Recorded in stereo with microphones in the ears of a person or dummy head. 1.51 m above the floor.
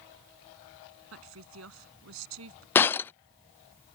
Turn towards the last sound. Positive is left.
turn(degrees=10)  # may be behind; listen again after turning